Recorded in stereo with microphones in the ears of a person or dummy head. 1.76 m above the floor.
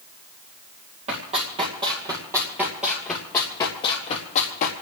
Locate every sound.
1.1 s running footsteps: 35° right (ahead or behind), 3.5 m; by 4.7 s 40° left (ahead or behind), 3 m